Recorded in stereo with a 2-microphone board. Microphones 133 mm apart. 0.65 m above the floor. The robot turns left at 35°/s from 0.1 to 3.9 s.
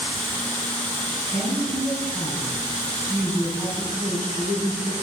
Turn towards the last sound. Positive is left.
turn(degrees=160)